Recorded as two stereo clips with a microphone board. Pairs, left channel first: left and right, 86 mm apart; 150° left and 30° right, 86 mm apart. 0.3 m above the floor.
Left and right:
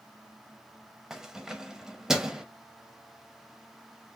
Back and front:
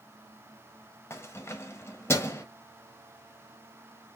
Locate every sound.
1.1 s keys jangling: 170° right, 0.9 m